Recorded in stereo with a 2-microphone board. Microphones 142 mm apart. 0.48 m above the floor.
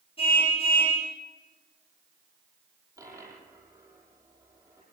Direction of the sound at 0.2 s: 40° left (ahead or behind).